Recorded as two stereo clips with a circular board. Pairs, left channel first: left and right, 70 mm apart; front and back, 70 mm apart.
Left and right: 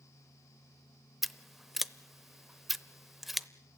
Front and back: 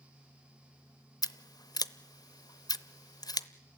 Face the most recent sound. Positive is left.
turn(degrees=-5)